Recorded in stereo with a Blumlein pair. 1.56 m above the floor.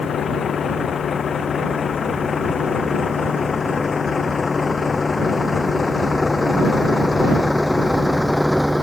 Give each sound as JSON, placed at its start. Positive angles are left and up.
{"t": 0.0, "sound": "a vehicle", "azimuth_deg": 25}